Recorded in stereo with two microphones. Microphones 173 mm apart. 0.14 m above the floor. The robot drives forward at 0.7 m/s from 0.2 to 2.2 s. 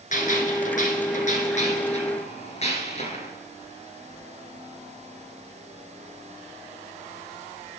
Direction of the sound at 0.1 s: 50° left (ahead or behind).